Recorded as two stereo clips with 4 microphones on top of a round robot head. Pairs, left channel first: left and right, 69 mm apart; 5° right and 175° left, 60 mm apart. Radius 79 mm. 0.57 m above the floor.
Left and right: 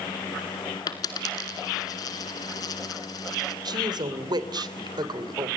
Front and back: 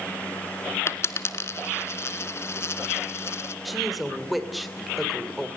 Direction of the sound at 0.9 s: 45° left.